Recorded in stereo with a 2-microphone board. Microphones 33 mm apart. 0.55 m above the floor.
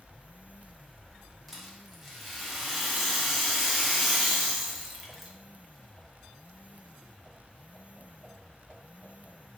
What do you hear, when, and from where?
1.5 s a rattle: 5° right (ahead or behind), 1.2 m